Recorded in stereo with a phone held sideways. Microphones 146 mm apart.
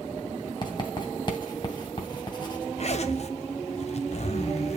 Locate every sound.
0.6 s writing: 35° left (ahead or behind), 2.5 m
2.8 s a zipper: 50° left (ahead or behind), 1.0 m